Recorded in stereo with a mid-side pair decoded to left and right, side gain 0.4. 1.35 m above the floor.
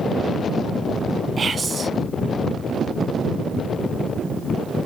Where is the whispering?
40° right, 0.7 m.